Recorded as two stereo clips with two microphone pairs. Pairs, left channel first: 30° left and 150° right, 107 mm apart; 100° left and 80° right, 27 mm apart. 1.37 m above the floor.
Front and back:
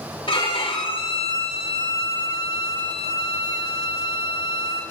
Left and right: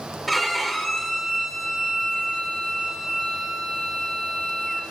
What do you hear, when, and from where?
0.3 s a violin: 15° left, 1.5 m